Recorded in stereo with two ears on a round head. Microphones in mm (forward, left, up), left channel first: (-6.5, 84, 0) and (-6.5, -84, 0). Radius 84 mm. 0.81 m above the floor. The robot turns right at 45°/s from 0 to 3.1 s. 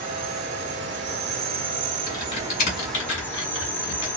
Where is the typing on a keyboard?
20° left (ahead or behind), 2.0 m; by 4.1 s 70° left (ahead or behind), 2.0 m.